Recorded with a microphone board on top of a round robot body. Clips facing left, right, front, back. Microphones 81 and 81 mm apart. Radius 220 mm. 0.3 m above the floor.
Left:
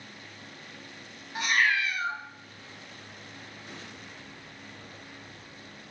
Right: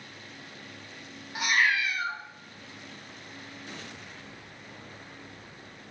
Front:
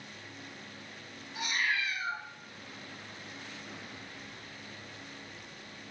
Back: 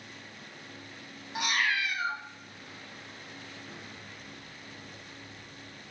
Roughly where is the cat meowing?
Behind.